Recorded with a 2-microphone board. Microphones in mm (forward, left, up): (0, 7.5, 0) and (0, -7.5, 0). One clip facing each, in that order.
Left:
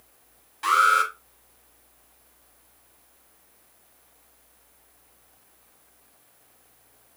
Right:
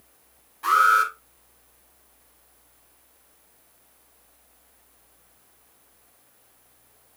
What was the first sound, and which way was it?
An alarm, 45° left (ahead or behind).